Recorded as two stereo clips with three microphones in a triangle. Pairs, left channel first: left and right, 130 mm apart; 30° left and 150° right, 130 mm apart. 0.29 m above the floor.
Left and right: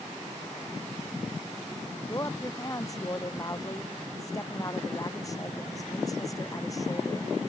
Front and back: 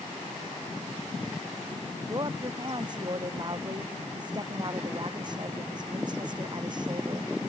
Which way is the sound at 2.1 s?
155° left.